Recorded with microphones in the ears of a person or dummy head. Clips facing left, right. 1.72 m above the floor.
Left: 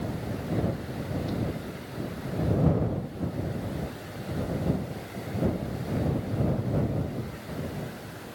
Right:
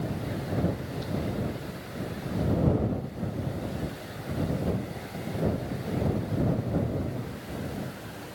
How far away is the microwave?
I don't hear a microwave.